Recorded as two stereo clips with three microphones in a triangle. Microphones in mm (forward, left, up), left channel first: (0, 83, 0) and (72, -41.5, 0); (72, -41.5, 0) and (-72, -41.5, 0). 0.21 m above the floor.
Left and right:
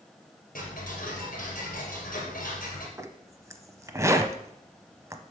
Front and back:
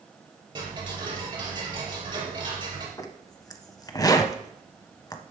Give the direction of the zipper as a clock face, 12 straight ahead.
1 o'clock.